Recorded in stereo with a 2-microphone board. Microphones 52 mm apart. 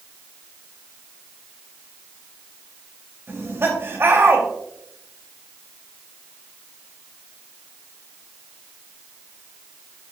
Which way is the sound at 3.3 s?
50° right (ahead or behind).